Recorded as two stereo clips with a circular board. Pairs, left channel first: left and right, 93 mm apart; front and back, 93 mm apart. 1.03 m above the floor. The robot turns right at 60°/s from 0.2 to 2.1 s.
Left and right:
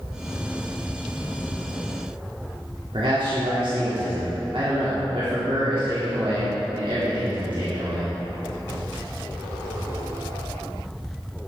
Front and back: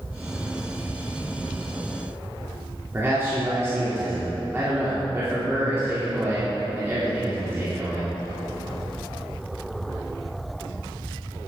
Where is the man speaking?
115° right, 2.5 m.